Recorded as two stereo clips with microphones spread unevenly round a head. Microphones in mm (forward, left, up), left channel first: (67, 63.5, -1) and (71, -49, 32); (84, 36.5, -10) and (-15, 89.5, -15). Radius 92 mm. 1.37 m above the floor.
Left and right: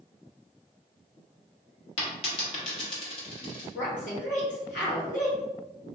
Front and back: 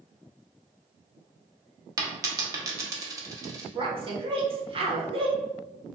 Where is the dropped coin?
120° left, 0.9 m.